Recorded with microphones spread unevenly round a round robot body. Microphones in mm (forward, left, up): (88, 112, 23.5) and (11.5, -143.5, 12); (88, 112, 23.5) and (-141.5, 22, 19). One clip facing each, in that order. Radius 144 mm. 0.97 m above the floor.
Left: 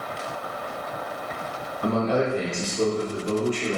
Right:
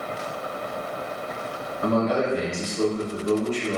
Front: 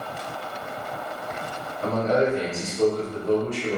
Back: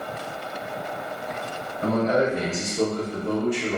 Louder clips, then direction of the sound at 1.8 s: Right 1 dB, even; 155° right.